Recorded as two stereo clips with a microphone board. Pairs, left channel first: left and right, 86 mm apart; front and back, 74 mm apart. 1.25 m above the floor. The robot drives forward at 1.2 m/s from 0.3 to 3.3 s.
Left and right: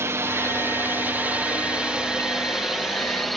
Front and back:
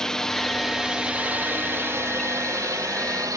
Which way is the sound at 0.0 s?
75° right.